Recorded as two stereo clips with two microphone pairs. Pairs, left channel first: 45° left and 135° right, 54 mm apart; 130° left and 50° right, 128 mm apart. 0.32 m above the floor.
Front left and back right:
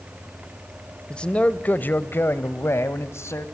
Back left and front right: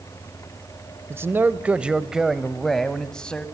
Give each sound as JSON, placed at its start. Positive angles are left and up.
{"t": 1.1, "sound": "a man speaking", "azimuth_deg": -5, "distance_m": 1.0}